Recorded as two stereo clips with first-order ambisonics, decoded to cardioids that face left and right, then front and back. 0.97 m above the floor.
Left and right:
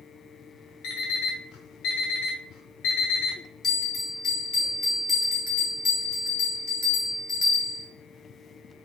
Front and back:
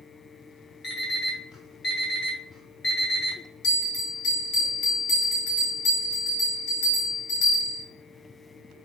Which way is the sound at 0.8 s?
70° left.